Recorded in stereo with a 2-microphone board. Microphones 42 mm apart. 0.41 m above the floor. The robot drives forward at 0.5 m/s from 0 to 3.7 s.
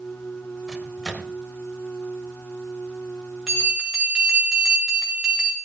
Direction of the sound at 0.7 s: 15° left (ahead or behind).